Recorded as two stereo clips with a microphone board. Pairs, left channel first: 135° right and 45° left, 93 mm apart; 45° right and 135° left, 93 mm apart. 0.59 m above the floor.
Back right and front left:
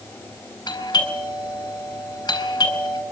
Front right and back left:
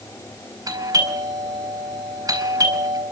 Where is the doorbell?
175° right, 7.5 m.